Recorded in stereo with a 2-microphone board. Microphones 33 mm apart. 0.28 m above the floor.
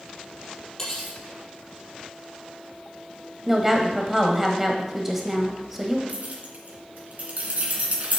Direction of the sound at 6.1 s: 45° right (ahead or behind).